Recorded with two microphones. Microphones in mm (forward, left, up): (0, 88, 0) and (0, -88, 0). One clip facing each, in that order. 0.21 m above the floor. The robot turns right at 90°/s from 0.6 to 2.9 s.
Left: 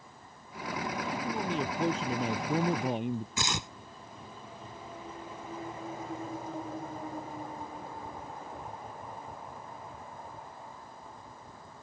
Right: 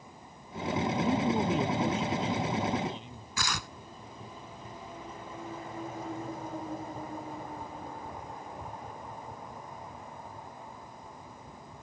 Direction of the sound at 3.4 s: 25° left (ahead or behind).